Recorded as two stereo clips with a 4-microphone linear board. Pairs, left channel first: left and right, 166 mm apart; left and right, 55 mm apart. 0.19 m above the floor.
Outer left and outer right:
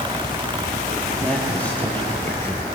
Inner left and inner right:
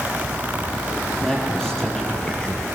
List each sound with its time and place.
1.2 s a man speaking: 5° left (ahead or behind), 5 m; by 2.7 s 15° left (ahead or behind), 3.5 m